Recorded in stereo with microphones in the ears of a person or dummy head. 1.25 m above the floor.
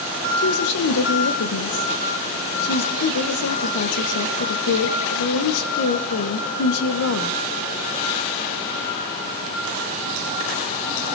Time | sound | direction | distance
0.4 | a woman speaking | 80° left | 1.5 m